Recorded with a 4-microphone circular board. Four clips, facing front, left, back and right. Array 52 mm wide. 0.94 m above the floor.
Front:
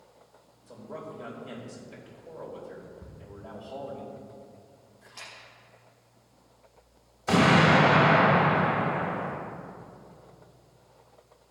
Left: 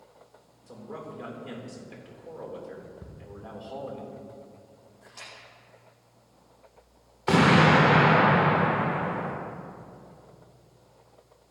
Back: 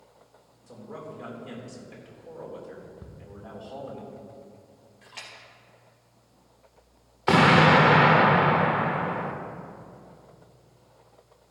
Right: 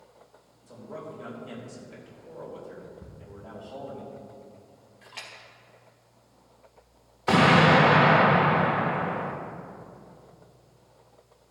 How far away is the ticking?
About 1.5 m.